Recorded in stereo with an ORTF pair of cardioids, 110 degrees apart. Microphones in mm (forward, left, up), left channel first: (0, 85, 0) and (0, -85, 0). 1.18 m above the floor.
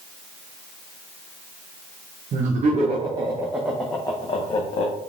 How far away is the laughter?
About 0.9 m.